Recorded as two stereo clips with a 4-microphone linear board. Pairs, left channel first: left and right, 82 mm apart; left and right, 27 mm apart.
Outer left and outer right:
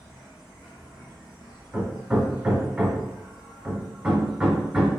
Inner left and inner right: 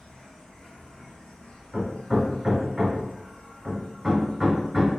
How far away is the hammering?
About 0.8 m.